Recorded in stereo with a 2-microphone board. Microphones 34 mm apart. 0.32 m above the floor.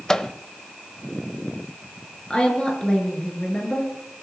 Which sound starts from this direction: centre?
A microwave, at 0.1 s.